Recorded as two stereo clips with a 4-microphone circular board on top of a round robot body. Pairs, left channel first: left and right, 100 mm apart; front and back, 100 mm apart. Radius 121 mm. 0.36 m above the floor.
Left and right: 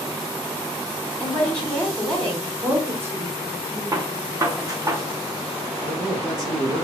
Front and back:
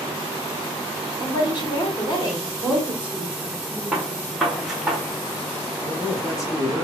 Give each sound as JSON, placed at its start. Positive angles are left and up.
{"t": 1.2, "sound": "a woman speaking", "azimuth_deg": 5, "distance_m": 1.7}
{"t": 2.6, "sound": "a woman speaking", "azimuth_deg": -120, "distance_m": 0.9}
{"t": 3.9, "sound": "a gunshot", "azimuth_deg": -100, "distance_m": 1.0}
{"t": 5.8, "sound": "a man speaking", "azimuth_deg": -50, "distance_m": 1.3}